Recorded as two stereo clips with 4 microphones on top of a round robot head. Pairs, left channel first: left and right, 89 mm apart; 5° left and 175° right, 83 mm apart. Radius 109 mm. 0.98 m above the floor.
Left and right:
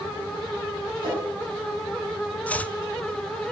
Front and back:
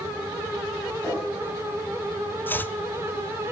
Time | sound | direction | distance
1.0 | a whoosh | 80° right | 7.5 m
2.5 | chopping | 35° left | 0.6 m